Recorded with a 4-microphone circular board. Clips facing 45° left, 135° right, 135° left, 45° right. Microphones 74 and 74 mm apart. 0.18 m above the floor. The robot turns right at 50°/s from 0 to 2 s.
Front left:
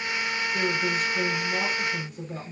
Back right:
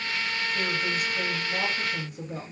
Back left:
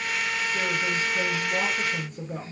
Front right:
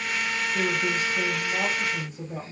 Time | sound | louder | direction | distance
0.5 | a woman speaking | front left 4 dB, front right 3 dB | 65° left | 1.8 m